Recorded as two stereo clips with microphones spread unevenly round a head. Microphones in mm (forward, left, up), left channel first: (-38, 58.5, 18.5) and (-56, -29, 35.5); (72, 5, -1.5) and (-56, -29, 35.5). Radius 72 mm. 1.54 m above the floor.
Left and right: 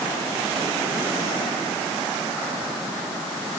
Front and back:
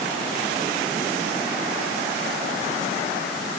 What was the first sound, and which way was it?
Only background noise.